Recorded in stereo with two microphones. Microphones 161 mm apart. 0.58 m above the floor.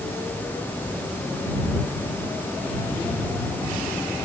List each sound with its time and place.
Only background noise.